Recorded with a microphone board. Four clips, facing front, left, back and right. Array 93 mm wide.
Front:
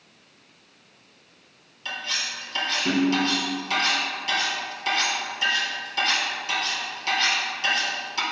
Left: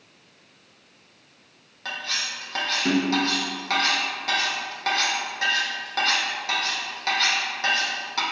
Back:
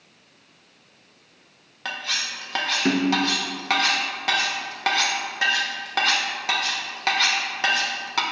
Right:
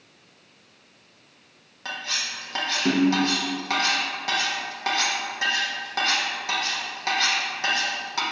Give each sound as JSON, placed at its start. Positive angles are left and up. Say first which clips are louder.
{"t": 1.9, "sound": "cutlery clinking", "louder": "left 1 dB, back 2 dB", "azimuth_deg": -175, "distance_m": 0.9}